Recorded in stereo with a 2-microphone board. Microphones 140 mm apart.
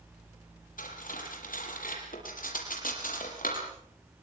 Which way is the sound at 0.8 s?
75° left (ahead or behind).